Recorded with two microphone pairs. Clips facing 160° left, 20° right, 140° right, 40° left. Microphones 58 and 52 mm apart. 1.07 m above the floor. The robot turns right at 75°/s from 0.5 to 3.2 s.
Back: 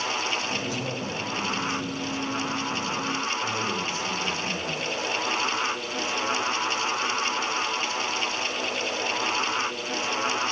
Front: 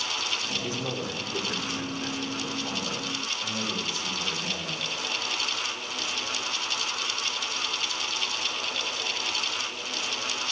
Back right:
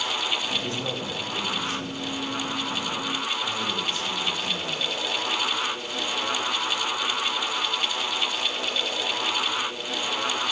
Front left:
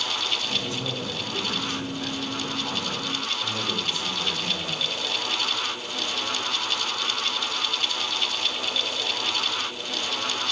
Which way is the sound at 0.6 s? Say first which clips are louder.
Back 1 dB, back right 1 dB; 90° right.